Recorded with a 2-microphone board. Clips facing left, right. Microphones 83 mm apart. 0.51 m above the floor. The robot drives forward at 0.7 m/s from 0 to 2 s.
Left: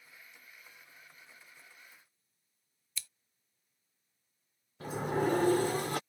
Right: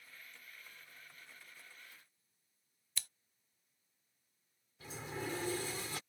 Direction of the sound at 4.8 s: 55° left (ahead or behind).